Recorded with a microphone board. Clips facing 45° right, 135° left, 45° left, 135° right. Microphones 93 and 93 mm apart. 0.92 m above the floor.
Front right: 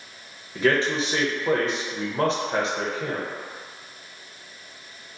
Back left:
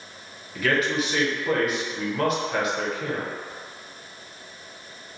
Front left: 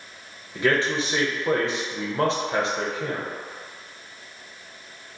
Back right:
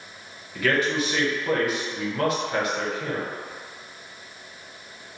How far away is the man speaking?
About 0.6 m.